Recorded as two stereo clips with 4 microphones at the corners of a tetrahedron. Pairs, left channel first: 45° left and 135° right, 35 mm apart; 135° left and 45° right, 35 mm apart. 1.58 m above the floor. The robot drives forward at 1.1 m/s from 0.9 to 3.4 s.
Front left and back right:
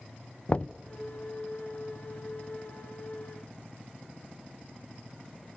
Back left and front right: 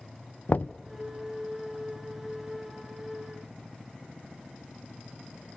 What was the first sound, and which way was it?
Knocking, 100° left.